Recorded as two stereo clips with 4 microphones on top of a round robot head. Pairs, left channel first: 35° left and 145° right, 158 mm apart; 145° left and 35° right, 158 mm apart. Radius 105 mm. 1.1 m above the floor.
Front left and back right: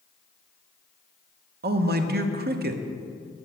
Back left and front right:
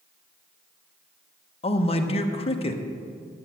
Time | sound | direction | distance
1.6 | a man speaking | 165° right | 1.0 m